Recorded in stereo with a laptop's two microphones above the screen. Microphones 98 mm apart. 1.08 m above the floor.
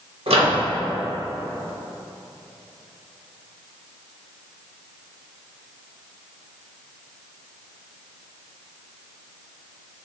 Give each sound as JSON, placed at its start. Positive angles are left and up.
{"t": 0.3, "sound": "a microwave", "side_deg": -90, "distance_m": 0.8}